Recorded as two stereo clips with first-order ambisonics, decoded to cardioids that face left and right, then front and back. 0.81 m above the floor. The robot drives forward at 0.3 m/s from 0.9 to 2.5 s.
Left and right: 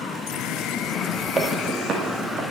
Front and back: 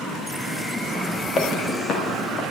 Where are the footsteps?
35° right, 1.1 m.